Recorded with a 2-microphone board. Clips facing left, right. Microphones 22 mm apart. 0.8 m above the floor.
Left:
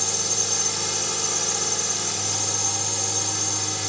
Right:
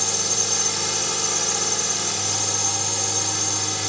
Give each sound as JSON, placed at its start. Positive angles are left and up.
{"t": 0.0, "sound": "a drone", "side_deg": -5}